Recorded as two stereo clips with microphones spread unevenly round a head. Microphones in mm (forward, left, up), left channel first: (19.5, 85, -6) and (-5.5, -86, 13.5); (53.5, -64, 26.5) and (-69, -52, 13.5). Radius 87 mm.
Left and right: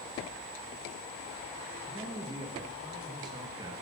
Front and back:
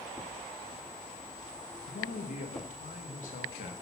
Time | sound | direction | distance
1.9 | a man speaking | 30° right | 1.5 m